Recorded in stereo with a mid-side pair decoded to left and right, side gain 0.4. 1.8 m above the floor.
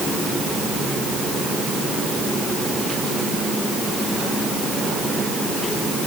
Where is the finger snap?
No finger snap in this recording.